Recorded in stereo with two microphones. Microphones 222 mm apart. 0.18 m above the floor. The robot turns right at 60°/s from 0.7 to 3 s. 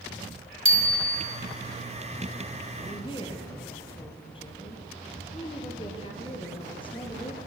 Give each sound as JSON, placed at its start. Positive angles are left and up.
{"t": 0.7, "sound": "a bicycle bell", "side_deg": -65, "distance_m": 4.0}
{"t": 2.8, "sound": "a woman speaking", "side_deg": 35, "distance_m": 3.5}